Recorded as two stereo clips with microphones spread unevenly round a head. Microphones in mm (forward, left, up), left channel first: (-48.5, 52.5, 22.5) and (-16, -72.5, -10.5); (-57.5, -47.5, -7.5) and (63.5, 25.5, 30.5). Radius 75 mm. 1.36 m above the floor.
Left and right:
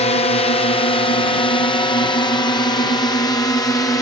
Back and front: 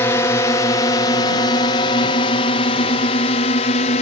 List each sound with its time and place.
0.0 s a drone: 150° left; by 4.0 s 175° left